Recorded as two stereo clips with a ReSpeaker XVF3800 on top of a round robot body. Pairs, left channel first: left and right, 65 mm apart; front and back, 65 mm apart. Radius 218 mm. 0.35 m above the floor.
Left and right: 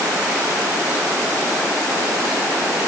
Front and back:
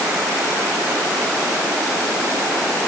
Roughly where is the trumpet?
I don't hear a trumpet.